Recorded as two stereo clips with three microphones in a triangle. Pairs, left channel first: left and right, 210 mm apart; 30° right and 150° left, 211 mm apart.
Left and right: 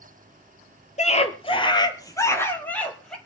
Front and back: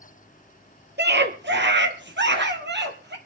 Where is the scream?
140° left, 2.5 m; by 3.2 s 175° left, 3 m.